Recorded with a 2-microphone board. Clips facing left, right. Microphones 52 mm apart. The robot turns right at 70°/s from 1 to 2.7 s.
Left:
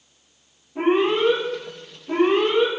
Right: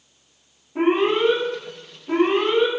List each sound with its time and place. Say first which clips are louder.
0.8 s an alarm: even; 115° right, 1.3 m; by 2.7 s 5° left, 1.3 m